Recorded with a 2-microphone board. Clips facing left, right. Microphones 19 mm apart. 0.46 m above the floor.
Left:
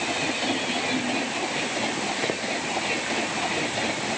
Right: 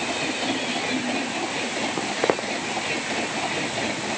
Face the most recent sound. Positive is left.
turn(degrees=-70)  # may be behind; listen again after turning